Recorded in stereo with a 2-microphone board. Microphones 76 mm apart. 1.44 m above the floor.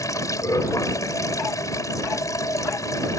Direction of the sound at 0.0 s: 50° left (ahead or behind).